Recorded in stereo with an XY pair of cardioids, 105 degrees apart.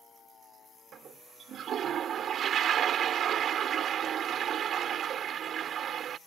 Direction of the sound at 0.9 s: 60° right.